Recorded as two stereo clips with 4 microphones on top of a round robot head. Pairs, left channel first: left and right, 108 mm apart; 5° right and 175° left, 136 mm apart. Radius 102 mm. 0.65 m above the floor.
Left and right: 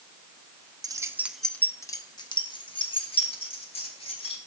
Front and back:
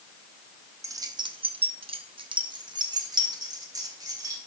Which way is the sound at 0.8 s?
125° right.